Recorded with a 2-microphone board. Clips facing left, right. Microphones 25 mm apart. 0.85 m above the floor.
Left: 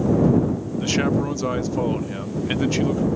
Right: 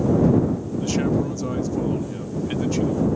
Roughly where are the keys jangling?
I don't hear keys jangling.